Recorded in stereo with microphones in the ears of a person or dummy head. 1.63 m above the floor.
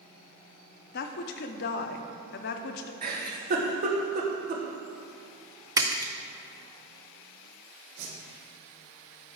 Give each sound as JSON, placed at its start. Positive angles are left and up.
{"t": 0.9, "sound": "a woman speaking", "side_deg": 55, "distance_m": 0.7}
{"t": 3.0, "sound": "a giggle", "side_deg": -45, "distance_m": 1.3}
{"t": 5.8, "sound": "a splash", "side_deg": -10, "distance_m": 0.6}
{"t": 8.0, "sound": "a whoosh", "side_deg": -80, "distance_m": 3.0}